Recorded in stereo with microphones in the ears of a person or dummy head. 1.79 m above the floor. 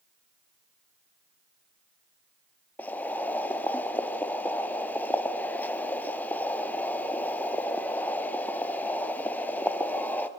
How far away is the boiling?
About 0.7 m.